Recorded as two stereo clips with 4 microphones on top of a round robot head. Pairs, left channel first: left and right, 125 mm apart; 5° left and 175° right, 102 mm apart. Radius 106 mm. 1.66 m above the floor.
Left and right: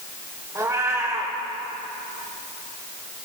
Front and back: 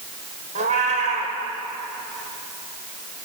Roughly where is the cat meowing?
Behind.